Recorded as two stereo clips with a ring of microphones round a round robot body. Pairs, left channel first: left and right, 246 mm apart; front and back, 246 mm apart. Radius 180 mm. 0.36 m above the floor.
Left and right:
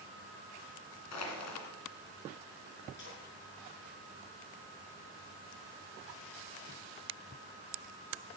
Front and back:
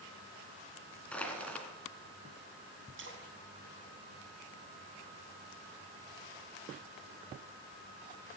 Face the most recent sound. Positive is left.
turn(degrees=145)